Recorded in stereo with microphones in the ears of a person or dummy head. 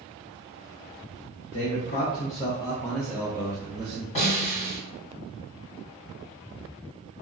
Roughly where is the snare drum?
Left.